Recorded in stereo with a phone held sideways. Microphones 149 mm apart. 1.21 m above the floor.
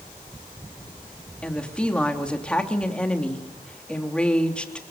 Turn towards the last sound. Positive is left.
turn(degrees=5)  # may be behind; listen again after turning